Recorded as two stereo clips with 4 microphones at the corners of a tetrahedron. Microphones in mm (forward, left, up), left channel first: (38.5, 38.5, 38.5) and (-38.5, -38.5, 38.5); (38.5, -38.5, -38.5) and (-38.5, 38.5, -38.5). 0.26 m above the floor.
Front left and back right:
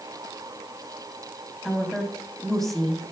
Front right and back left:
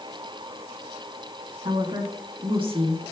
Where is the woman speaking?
130° left, 1.8 m.